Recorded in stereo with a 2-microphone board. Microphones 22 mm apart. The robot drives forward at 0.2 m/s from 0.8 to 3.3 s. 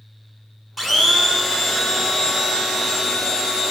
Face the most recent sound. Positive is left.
turn(degrees=-5)  # may be behind; listen again after turning